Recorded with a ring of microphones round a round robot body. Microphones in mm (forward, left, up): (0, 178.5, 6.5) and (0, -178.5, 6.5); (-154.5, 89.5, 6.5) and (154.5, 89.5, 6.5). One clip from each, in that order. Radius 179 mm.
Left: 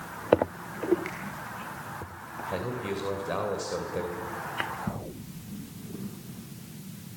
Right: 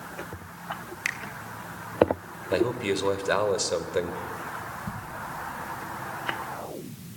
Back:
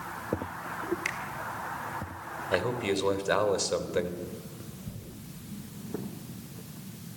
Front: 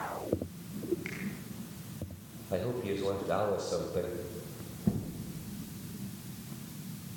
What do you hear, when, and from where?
1.1 s a finger snap: 130° right, 2.5 m
2.5 s a man speaking: 140° right, 3 m